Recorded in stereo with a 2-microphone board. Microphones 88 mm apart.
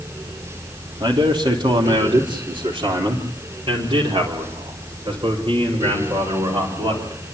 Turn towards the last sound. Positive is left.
turn(degrees=-75)  # may be behind; listen again after turning